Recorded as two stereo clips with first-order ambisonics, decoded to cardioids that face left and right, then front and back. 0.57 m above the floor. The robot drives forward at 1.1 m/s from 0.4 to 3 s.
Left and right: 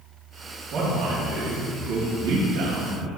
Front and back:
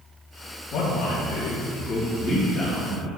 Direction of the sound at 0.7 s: 45° right.